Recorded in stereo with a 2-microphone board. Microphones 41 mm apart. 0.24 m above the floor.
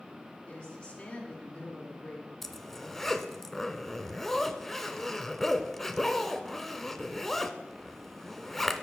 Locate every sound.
0.5 s a woman speaking: 25° left (ahead or behind), 3.5 m
2.4 s a zipper: 5° left (ahead or behind), 0.6 m